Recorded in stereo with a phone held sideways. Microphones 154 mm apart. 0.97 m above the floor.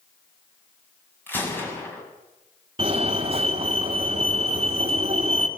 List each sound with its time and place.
1.3 s a gunshot: 15° left (ahead or behind), 6.5 m
2.8 s a fire alarm: 35° right (ahead or behind), 3.5 m